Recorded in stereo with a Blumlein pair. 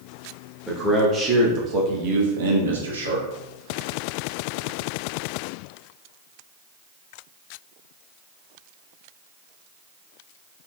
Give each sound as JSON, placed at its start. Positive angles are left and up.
{"t": 0.7, "sound": "a man speaking", "azimuth_deg": -10, "distance_m": 1.1}